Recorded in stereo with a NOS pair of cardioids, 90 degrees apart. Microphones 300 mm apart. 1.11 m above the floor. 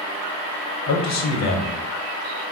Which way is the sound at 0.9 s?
60° left.